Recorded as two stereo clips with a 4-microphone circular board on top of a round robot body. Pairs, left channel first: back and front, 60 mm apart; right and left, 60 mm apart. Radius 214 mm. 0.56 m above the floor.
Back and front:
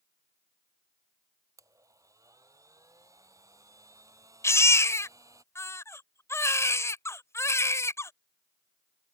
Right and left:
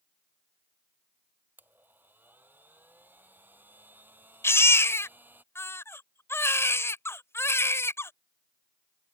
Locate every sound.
1.6 s a blender: 30° left
4.4 s a baby crying: 135° right